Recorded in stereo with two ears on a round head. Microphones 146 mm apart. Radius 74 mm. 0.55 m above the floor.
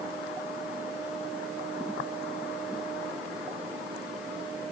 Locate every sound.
Only background noise.